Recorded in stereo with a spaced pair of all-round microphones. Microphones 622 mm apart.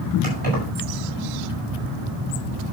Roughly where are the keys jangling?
Right.